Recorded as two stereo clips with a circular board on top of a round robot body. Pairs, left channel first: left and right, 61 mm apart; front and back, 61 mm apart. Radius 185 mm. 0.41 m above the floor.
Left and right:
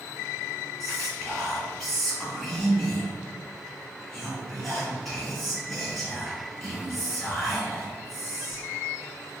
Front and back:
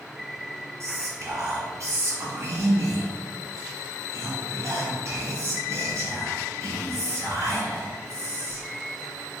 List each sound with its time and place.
0.8 s whispering: 165° left, 1.6 m